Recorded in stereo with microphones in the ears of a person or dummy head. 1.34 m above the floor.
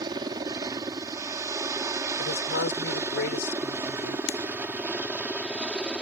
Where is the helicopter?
30° right (ahead or behind); by 6.0 s 10° right (ahead or behind).